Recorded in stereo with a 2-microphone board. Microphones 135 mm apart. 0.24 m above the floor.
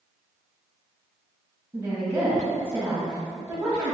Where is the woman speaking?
20° right (ahead or behind), 1.0 m.